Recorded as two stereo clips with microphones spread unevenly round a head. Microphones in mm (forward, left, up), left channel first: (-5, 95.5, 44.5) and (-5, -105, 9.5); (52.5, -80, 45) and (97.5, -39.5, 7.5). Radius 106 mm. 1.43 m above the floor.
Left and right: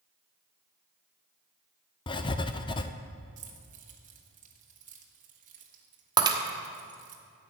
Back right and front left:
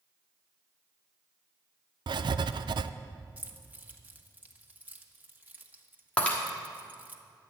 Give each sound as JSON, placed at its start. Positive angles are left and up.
{"t": 2.1, "sound": "writing", "azimuth_deg": 30, "distance_m": 0.5}
{"t": 3.4, "sound": "keys jangling", "azimuth_deg": -35, "distance_m": 1.6}
{"t": 6.2, "sound": "breaking glass", "azimuth_deg": -165, "distance_m": 1.2}